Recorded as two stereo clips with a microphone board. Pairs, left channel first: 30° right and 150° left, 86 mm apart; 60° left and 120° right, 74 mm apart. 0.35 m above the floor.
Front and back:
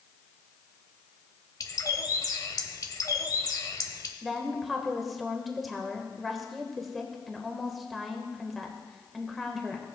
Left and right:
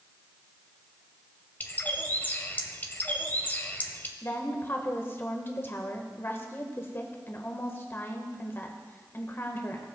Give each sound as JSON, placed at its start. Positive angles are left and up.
{"t": 1.6, "sound": "a bird", "azimuth_deg": 0, "distance_m": 0.9}
{"t": 4.2, "sound": "a woman speaking", "azimuth_deg": 60, "distance_m": 1.2}